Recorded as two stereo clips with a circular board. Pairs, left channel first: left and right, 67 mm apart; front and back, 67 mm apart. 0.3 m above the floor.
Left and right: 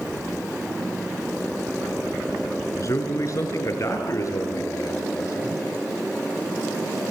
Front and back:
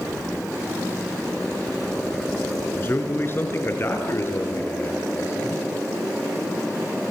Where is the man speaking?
55° left, 4.5 m; by 5.6 s 50° left, 8 m.